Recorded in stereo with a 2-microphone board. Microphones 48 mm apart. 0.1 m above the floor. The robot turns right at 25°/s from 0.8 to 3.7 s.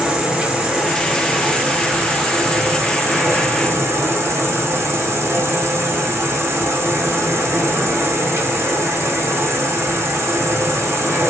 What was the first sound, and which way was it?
An insect, 160° right.